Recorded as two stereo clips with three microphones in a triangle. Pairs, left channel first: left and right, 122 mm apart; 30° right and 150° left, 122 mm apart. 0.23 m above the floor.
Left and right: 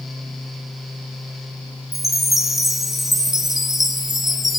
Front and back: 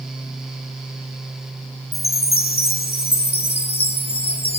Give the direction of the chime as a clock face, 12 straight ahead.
12 o'clock.